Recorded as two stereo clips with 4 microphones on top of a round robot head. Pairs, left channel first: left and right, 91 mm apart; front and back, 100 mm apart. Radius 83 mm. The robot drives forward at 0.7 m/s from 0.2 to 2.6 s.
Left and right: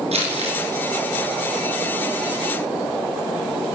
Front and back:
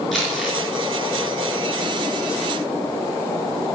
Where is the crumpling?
90° right, 5 m; by 0.6 s 95° right, 5 m.